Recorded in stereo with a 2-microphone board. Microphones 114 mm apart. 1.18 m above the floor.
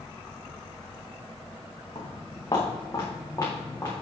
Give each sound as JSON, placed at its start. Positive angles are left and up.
{"t": 1.9, "sound": "footsteps", "side_deg": 40, "distance_m": 4.5}